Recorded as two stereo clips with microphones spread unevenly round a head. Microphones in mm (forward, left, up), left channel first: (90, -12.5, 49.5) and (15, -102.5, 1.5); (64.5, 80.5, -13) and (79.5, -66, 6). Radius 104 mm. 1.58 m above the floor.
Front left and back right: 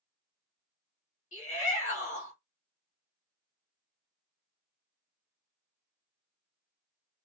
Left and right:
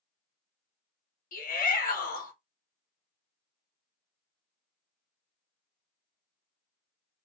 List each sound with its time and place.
1.3 s a shout: 70° left, 1.4 m